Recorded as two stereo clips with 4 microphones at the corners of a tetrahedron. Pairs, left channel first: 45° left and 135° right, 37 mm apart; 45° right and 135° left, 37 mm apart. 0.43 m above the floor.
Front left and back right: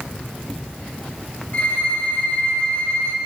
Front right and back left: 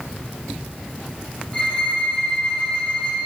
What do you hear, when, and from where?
1.5 s a violin: 5° left, 1.8 m